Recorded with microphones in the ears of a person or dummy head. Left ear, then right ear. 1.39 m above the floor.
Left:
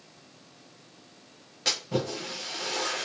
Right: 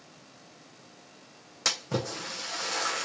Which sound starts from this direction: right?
A splash, at 1.6 s.